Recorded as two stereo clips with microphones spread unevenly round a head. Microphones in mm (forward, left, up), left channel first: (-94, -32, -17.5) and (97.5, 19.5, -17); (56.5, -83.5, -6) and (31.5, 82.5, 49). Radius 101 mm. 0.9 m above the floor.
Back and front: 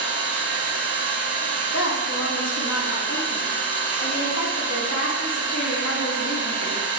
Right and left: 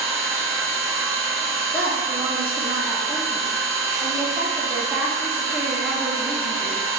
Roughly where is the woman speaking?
Behind.